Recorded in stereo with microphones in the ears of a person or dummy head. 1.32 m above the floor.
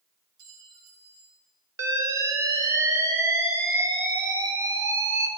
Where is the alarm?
15° right (ahead or behind), 1.6 m.